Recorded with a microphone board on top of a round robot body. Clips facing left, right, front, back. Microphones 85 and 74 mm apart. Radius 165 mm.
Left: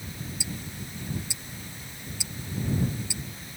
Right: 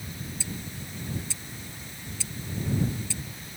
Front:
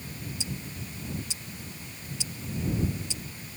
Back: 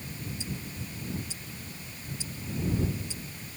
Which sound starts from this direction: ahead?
Ticking, at 0.4 s.